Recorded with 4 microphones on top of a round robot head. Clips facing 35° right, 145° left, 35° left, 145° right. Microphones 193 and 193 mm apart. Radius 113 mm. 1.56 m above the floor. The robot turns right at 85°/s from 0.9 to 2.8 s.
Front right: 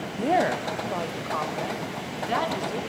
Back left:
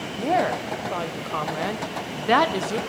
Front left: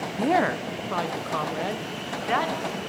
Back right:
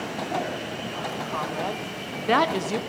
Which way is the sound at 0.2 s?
50° left.